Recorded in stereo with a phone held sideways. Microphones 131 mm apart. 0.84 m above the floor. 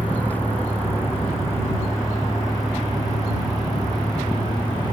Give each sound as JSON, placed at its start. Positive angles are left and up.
{"t": 0.0, "sound": "a vehicle", "side_deg": 10}